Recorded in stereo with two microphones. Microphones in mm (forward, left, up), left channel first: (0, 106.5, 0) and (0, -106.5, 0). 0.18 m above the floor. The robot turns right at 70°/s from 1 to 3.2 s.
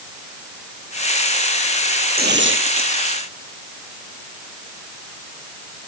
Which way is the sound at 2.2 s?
130° right.